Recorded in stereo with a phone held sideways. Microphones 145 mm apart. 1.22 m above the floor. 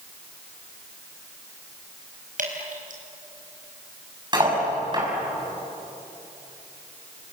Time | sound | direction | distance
2.4 | dripping | 70° right (ahead or behind) | 4.5 m
4.3 | cutlery clinking | 30° right (ahead or behind) | 6 m